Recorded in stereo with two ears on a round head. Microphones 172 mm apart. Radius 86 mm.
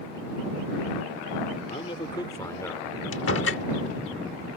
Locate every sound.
1.7 s a man speaking: 30° left (ahead or behind); by 3.0 s 10° left (ahead or behind)
3.1 s a door slam: 80° left